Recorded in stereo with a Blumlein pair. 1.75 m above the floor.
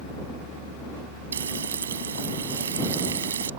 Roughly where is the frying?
Ahead right.